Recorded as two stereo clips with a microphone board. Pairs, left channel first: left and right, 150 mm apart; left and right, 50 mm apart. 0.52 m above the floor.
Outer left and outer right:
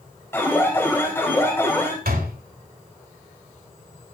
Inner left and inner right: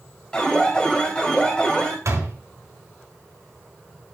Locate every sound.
0.3 s an alarm: 15° left (ahead or behind), 3.5 m
2.0 s a door slam: 80° right, 3.5 m